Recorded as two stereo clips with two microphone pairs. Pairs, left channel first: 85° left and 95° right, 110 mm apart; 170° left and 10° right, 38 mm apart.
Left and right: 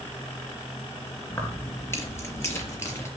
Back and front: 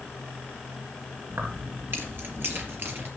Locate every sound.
1.3 s keys jangling: 15° left, 3 m; by 3.1 s 20° left, 4.5 m